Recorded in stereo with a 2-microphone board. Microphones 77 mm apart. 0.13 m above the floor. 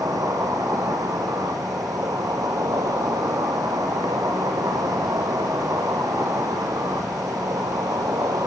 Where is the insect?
55° right (ahead or behind), 4 m.